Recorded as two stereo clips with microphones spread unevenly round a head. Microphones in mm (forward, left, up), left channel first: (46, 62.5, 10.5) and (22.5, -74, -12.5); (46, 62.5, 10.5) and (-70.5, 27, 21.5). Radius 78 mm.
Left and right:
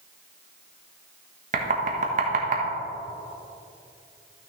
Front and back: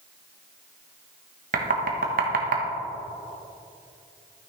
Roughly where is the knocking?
Behind right.